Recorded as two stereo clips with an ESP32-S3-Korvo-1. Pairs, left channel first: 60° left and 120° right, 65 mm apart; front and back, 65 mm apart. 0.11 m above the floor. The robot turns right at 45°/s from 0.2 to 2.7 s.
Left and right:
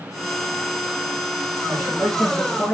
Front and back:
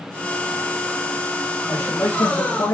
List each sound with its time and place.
1.7 s a man speaking: 60° right, 3 m; by 2.8 s 10° right, 3 m